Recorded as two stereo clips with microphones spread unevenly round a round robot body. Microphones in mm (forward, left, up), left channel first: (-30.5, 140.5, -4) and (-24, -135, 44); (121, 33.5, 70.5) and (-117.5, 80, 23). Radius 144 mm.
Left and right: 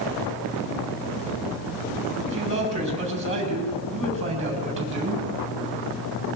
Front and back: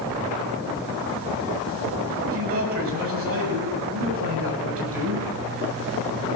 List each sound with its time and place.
2.2 s a man speaking: 160° right, 6 m